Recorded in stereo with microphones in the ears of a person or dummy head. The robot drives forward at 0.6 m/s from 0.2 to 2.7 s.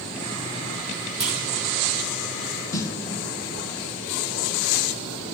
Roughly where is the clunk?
Centre.